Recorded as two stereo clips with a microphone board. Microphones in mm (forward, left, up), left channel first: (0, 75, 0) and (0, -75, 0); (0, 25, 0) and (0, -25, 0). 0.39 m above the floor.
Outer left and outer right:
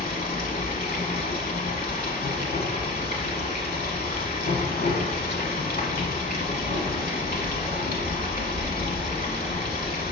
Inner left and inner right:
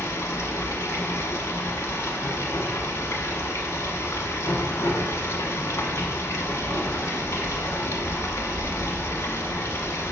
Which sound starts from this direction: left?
Running water, at 0.0 s.